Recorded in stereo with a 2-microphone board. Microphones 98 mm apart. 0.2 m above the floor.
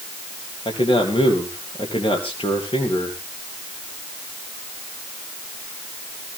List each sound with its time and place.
0.7 s a man speaking: 70° left (ahead or behind), 4 m